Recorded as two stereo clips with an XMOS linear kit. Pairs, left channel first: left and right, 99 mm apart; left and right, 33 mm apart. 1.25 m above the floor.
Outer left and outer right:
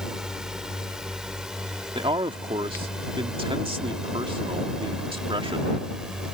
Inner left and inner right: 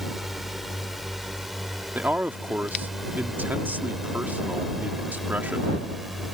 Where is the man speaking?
65° right (ahead or behind).